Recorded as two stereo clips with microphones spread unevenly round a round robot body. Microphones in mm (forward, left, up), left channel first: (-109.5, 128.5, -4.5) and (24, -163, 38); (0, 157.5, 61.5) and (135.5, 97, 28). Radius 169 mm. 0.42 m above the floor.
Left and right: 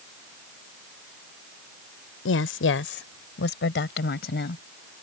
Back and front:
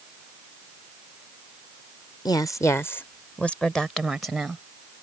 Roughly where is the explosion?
No explosion in this recording.